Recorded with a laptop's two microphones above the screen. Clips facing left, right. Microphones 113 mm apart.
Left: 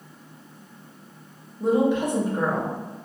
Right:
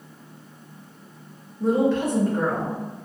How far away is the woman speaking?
About 0.6 m.